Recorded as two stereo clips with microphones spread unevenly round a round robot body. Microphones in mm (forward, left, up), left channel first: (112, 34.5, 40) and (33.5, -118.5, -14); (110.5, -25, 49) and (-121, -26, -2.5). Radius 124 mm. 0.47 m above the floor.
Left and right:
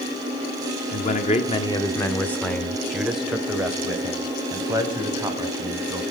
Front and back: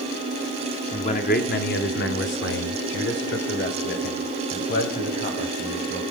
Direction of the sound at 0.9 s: 60° left.